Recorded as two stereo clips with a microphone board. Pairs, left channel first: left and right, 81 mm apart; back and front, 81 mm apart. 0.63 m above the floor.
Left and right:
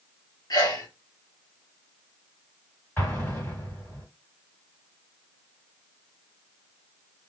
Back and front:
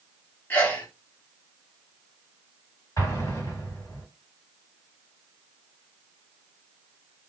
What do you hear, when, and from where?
0.5 s a sneeze: 115° left, 1.0 m
3.0 s an explosion: 150° left, 2 m